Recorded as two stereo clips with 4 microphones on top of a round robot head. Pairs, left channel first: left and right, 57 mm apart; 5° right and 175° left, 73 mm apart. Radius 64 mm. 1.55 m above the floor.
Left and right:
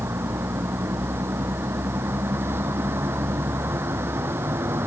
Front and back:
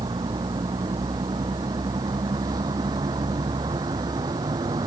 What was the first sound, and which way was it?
A vehicle, 135° right.